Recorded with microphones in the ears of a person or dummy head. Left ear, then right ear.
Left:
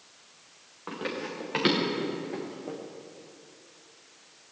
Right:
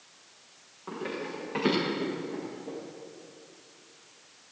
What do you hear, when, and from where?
0.9 s running footsteps: 55° left (ahead or behind), 6 m; by 2.8 s 70° left (ahead or behind), 5.5 m